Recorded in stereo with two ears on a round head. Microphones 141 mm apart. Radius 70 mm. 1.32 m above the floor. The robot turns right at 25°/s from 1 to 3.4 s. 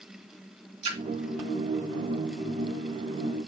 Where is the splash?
35° right (ahead or behind), 2.0 m.